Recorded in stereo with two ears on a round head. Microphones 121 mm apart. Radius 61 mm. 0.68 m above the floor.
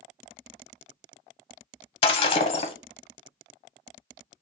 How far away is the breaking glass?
About 0.8 m.